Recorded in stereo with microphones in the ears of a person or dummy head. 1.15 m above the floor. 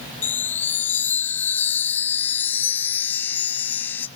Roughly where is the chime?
Centre.